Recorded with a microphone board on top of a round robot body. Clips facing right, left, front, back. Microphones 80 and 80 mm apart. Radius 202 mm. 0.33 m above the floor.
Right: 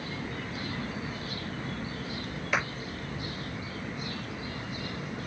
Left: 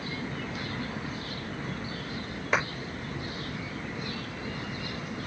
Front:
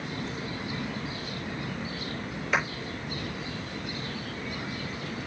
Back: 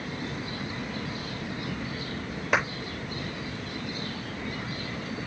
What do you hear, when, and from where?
2.5 s a clap: 150° left, 8.5 m